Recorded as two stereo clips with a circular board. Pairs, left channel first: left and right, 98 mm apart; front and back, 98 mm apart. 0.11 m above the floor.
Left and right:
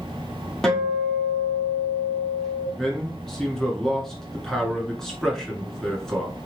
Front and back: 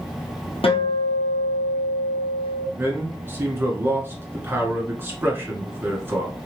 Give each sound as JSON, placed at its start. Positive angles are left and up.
{"t": 0.6, "sound": "a guitar", "azimuth_deg": 5, "distance_m": 1.3}
{"t": 2.8, "sound": "a man speaking", "azimuth_deg": 165, "distance_m": 1.5}